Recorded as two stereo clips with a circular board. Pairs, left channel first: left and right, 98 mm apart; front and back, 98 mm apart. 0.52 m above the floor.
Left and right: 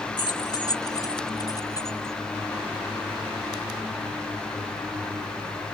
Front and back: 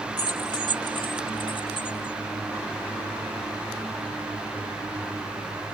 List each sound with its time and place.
0.2 s keys jangling: 45° left; by 2.2 s 35° left